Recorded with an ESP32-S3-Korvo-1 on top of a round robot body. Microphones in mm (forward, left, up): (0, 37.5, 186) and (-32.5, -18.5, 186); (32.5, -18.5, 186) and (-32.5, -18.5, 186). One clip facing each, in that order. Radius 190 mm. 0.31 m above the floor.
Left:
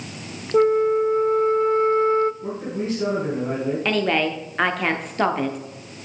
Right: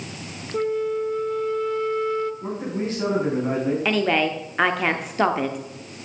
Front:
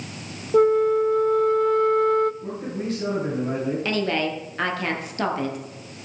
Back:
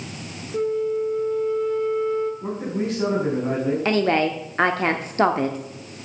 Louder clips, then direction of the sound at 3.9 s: Left 1 dB, back 7 dB; 155° left.